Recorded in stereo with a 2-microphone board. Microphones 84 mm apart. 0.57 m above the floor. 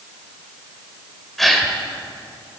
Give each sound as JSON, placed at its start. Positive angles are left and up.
{"t": 1.4, "sound": "a gasp", "side_deg": 5, "distance_m": 1.8}